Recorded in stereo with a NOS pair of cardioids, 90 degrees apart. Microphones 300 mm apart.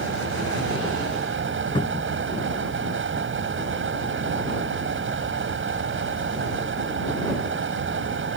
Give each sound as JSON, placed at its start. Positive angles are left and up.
{"t": 0.0, "sound": "a fan", "azimuth_deg": -40}
{"t": 1.8, "sound": "a cupboard door", "azimuth_deg": 15}